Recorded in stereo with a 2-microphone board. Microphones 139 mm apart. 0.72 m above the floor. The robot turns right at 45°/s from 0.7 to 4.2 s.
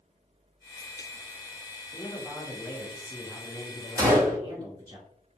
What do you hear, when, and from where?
1.9 s a man speaking: 130° left, 1.3 m; by 5.0 s 125° right, 1.3 m
4.0 s a gunshot: 25° right (ahead or behind), 1.1 m; by 4.4 s 15° right (ahead or behind), 1.1 m